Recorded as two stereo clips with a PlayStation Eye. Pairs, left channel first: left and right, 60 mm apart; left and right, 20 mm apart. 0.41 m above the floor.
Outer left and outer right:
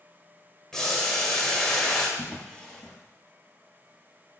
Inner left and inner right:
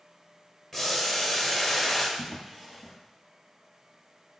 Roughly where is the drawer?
Centre.